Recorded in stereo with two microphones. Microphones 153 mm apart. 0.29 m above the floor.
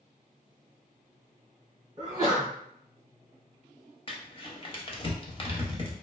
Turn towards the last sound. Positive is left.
turn(degrees=35)  # may be behind; listen again after turning